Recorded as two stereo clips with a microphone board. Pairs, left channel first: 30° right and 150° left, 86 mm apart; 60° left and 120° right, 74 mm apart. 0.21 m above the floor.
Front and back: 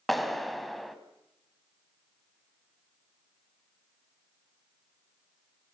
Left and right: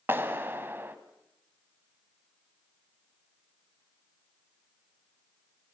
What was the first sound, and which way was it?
A clap, 120° right.